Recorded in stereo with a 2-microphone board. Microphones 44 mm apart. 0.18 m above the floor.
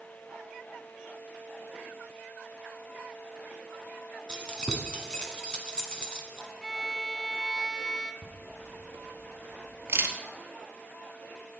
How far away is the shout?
I don't hear a shout.